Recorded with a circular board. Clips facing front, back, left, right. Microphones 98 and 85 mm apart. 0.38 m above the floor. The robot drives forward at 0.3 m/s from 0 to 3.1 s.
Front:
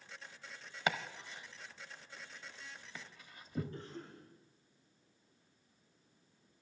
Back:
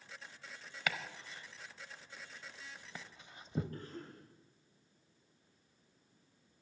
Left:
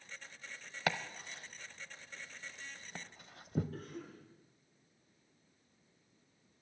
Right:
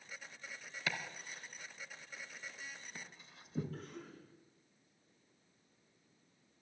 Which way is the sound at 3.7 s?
135° left.